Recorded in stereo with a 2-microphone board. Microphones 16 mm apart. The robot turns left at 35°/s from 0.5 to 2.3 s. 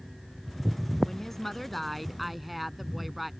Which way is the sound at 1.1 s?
35° left.